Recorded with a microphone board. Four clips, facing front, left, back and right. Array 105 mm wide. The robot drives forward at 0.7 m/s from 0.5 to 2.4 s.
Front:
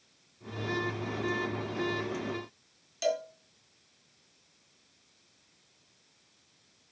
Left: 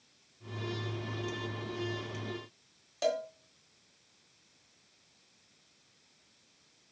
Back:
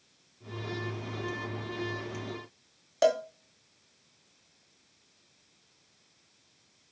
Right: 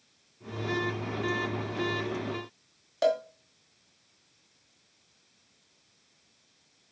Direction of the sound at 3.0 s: 155° right.